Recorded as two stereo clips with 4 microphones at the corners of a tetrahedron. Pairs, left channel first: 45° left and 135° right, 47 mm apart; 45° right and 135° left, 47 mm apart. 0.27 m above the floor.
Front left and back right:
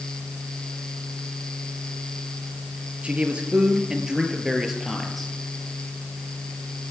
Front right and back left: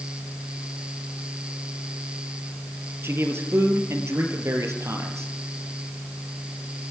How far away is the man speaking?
About 4.5 m.